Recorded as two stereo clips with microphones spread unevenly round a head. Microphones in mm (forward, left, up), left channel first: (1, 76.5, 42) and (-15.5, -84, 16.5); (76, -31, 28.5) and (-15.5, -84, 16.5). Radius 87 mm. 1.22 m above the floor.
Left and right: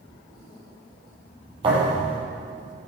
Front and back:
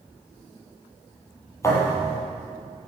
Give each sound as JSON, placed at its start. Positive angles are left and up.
{"t": 1.6, "sound": "a thud", "azimuth_deg": -30, "distance_m": 7.5}